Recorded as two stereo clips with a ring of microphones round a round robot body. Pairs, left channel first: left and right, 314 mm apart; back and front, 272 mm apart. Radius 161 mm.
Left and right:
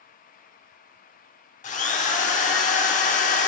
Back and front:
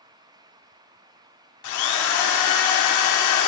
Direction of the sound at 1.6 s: 160° left.